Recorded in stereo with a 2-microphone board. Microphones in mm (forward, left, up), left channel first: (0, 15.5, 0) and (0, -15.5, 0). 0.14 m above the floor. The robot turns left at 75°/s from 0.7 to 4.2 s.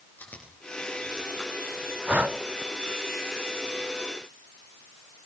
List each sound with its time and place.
0.2 s chewing: 80° left, 9 m; by 3.1 s 80° right, 9 m
2.1 s breathing: 45° right (ahead or behind), 0.7 m; by 2.4 s 50° right (ahead or behind), 0.7 m